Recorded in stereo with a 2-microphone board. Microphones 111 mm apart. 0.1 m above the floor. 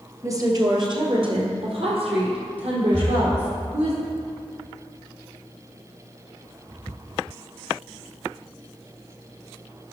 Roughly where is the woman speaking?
Right.